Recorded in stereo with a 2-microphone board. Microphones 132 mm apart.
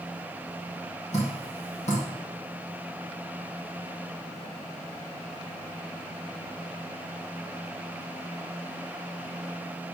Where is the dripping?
60° left (ahead or behind), 4 m.